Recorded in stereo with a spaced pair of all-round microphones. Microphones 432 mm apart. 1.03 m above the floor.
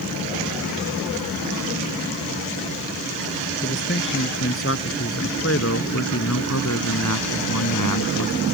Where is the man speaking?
25° left (ahead or behind); by 8.4 s 50° left (ahead or behind).